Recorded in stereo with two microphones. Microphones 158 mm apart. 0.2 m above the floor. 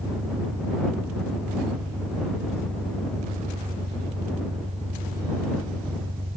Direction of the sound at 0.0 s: 40° right (ahead or behind).